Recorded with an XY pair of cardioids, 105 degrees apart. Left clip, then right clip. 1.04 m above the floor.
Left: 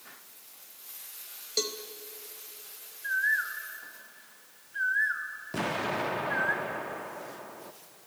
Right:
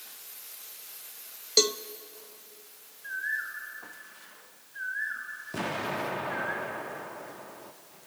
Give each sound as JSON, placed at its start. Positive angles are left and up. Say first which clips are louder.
{"t": 1.6, "sound": "a cowbell", "louder": "right 8 dB", "azimuth_deg": -45, "distance_m": 0.7}
{"t": 3.0, "sound": "a bird", "louder": "left 5 dB", "azimuth_deg": 50, "distance_m": 2.5}
{"t": 5.5, "sound": "an explosion", "louder": "left 1 dB", "azimuth_deg": 15, "distance_m": 1.0}